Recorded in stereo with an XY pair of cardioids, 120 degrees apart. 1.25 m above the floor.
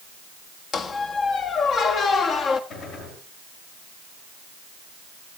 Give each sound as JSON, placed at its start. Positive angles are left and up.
{"t": 0.7, "sound": "a squeak", "azimuth_deg": 50, "distance_m": 1.4}
{"t": 2.7, "sound": "a gunshot", "azimuth_deg": 70, "distance_m": 9.5}